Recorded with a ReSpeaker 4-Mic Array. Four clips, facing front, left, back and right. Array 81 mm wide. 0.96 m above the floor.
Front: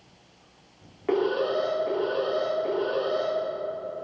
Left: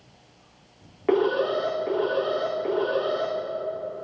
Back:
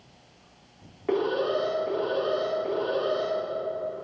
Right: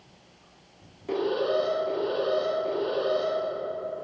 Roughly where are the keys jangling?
I don't hear keys jangling.